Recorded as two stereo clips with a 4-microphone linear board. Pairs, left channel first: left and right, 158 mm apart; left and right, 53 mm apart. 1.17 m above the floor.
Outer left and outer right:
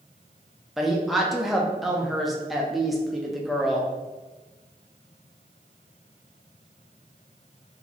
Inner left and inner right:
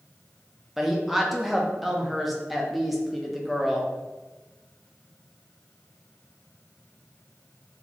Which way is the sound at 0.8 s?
Centre (ahead or behind).